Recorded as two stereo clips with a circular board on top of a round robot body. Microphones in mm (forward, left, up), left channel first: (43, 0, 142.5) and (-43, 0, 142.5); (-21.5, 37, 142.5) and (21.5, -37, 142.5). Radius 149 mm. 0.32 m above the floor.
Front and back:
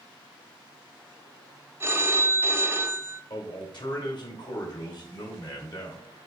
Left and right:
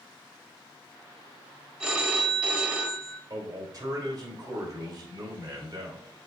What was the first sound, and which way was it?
A phone ringing, 135° right.